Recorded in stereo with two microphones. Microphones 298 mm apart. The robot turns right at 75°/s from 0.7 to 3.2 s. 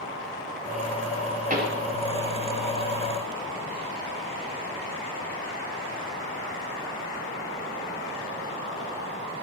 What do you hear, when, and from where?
1.5 s a pop: 25° right (ahead or behind), 1.4 m; by 1.9 s 50° right (ahead or behind), 1.4 m